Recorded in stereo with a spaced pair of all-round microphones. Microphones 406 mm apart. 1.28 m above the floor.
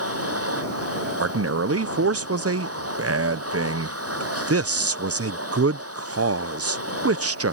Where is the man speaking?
40° right (ahead or behind).